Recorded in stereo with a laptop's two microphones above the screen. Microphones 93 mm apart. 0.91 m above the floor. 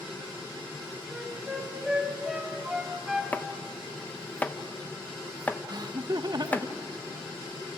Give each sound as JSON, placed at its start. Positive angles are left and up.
{"t": 1.1, "sound": "a flute", "side_deg": -5, "distance_m": 1.8}
{"t": 3.3, "sound": "chopping", "side_deg": 15, "distance_m": 0.8}
{"t": 5.7, "sound": "laughter", "side_deg": -50, "distance_m": 0.9}